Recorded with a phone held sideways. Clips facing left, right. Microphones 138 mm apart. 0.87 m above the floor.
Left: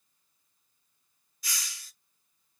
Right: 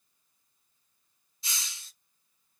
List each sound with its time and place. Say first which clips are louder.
1.4 s a hiss: left 1 dB; 25° right (ahead or behind), 0.6 m